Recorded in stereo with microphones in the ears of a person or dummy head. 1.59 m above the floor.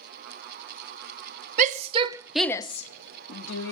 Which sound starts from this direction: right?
A shout, at 1.6 s.